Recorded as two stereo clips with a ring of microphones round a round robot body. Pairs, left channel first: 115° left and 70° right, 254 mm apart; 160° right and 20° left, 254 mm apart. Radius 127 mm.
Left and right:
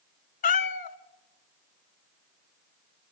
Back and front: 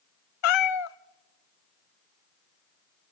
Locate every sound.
0.4 s a cat meowing: 175° left, 0.5 m